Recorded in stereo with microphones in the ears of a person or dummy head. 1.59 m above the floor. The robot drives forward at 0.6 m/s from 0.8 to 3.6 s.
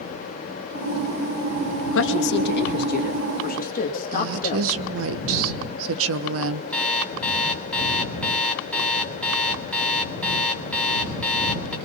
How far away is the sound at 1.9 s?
About 1.6 m.